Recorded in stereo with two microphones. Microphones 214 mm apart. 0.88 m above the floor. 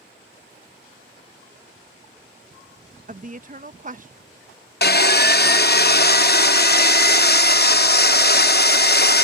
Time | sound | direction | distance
3.1 | a woman speaking | 40° right (ahead or behind) | ?
4.8 | sawing | 50° left (ahead or behind) | ?